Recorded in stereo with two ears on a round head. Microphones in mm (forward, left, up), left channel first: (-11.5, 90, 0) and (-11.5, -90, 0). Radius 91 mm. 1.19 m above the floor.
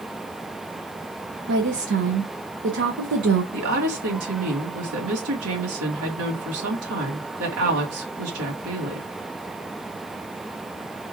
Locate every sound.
1.5 s a woman speaking: 55° right (ahead or behind), 0.7 m
3.5 s a woman speaking: 75° right (ahead or behind), 1.8 m